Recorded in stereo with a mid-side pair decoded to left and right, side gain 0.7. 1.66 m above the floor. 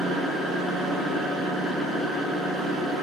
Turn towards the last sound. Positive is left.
turn(degrees=-5)